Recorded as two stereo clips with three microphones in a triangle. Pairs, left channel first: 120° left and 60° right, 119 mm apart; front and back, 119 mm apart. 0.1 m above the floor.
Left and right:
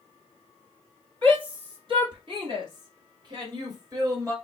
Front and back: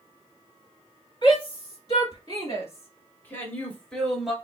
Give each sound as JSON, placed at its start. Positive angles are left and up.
{"t": 1.2, "sound": "a shout", "azimuth_deg": -30, "distance_m": 2.5}